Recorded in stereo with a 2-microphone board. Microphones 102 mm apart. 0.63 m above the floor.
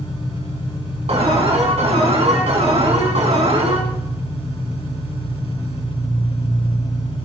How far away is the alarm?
About 3.5 m.